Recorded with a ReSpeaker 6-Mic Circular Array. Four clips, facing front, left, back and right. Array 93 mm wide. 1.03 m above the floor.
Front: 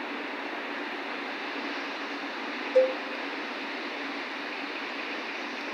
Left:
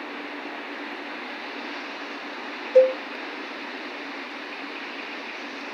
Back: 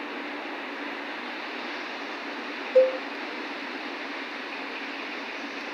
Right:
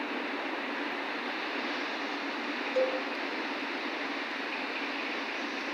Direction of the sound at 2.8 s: 105° left.